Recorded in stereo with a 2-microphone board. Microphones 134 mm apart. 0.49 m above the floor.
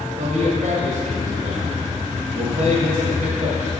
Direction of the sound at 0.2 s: 65° right (ahead or behind).